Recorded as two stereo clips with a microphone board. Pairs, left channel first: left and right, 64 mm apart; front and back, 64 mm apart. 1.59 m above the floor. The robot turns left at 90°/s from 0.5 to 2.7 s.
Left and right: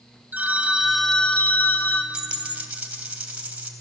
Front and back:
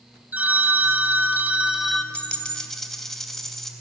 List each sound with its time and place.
0.3 s a phone ringing: 135° right, 0.7 m; by 2.0 s 85° left, 0.7 m
2.1 s a dropped coin: 30° right, 1.5 m; by 3.7 s 80° right, 1.5 m